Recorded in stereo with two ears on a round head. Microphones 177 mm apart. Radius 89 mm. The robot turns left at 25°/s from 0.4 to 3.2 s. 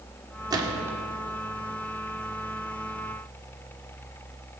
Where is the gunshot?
20° right (ahead or behind), 2 m; by 1.0 s 10° right (ahead or behind), 2 m.